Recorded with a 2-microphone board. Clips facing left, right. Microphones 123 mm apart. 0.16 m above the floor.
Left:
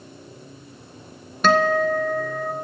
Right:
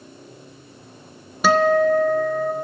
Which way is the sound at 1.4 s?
5° right (ahead or behind).